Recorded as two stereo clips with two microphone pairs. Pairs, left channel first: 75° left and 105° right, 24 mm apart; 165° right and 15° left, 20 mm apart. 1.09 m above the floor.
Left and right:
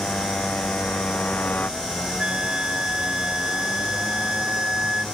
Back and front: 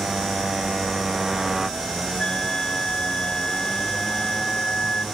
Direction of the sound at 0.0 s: 80° left.